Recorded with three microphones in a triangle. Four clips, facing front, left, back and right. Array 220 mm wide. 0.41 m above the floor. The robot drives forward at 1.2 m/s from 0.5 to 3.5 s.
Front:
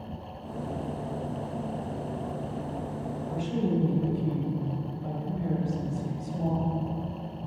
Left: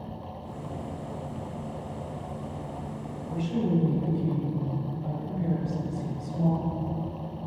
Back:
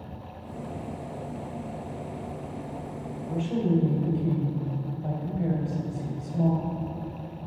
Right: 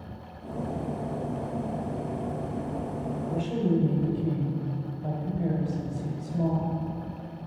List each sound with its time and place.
3.3 s a woman speaking: 140° right, 2.0 m; by 7.5 s 145° right, 2 m